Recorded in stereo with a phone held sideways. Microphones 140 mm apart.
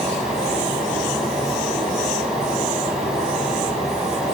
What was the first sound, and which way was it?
A fan, 5° right (ahead or behind).